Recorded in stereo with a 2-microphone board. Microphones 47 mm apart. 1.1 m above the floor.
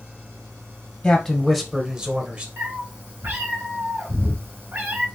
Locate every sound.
1.0 s a man speaking: 20° left (ahead or behind), 0.9 m; by 2.5 s 40° right (ahead or behind), 1.3 m
2.6 s a cat meowing: 75° right (ahead or behind), 2 m